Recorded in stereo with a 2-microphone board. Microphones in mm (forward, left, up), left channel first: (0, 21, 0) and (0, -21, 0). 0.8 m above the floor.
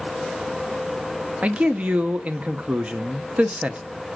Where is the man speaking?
30° right (ahead or behind), 0.6 m.